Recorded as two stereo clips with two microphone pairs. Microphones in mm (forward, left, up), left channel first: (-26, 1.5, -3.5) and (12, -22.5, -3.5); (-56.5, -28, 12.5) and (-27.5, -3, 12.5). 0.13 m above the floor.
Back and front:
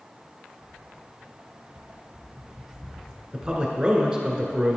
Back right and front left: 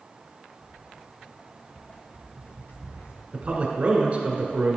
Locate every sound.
0.6 s footsteps: 70° right, 1.6 m; by 3.2 s 140° right, 0.8 m
3.3 s a man speaking: 15° left, 1.3 m